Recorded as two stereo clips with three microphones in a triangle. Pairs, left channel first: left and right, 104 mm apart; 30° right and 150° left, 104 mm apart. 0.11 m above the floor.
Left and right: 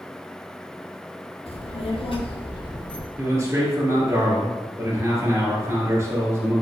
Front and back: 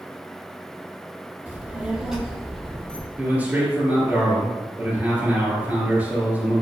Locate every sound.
1.5 s a child speaking: 75° left, 1.8 m; by 3.1 s 45° left, 1.6 m
3.2 s a man speaking: 140° right, 2.5 m